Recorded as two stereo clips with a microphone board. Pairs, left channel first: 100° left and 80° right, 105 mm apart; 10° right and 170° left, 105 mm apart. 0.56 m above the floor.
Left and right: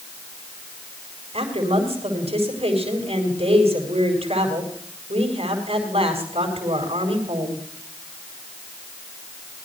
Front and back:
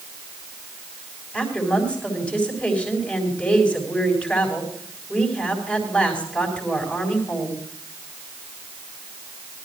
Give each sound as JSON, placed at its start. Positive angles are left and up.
{"t": 1.3, "sound": "a woman speaking", "azimuth_deg": -90, "distance_m": 4.5}